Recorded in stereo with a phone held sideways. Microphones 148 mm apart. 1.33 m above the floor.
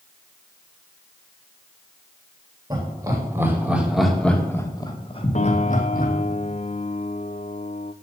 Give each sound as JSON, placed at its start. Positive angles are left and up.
{"t": 2.7, "sound": "laughter", "side_deg": -25, "distance_m": 3.5}
{"t": 5.3, "sound": "a piano", "side_deg": 50, "distance_m": 0.7}